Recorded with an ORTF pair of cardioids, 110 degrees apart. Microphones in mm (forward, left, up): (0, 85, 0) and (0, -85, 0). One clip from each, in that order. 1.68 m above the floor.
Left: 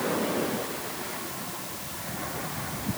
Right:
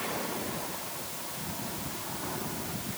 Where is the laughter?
No laughter in this recording.